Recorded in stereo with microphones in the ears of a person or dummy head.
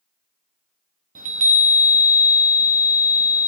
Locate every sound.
1.1 s a chime: 40° right (ahead or behind), 0.7 m